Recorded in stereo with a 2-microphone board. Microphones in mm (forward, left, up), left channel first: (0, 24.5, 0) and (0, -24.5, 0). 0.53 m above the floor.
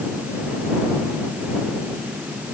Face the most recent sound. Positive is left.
No sound to turn to.